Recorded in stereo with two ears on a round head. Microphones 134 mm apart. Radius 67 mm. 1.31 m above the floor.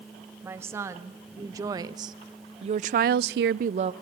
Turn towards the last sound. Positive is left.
turn(degrees=-40)  # may be behind; listen again after turning